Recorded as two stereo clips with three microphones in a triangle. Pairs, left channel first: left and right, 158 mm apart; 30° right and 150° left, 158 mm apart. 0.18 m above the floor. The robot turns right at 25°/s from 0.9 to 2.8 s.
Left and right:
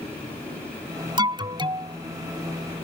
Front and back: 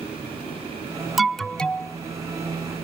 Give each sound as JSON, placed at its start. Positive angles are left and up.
{"t": 1.2, "sound": "an alarm", "azimuth_deg": -120}